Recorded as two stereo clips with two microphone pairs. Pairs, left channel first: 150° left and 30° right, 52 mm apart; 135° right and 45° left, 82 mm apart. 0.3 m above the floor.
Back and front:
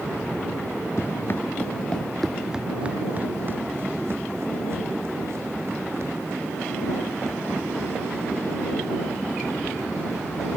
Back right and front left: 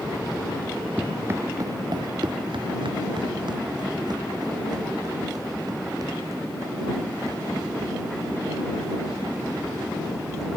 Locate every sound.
1.0 s running footsteps: 115° left; by 10.5 s 5° right